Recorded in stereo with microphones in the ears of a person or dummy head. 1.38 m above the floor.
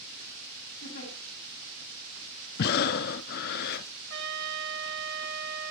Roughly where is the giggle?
Left.